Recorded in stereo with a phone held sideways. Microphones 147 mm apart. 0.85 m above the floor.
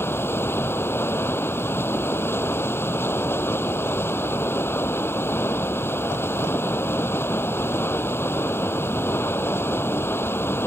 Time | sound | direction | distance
0.0 | running water | 15° left (ahead or behind) | ?